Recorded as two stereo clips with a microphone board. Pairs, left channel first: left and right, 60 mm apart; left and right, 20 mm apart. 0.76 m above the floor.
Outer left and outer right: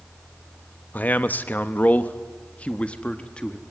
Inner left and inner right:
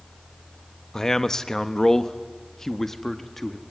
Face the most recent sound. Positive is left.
turn(degrees=15)  # may be behind; listen again after turning